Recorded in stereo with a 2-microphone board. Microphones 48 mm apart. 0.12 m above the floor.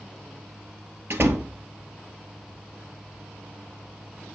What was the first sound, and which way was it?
A door slam, 55° right (ahead or behind).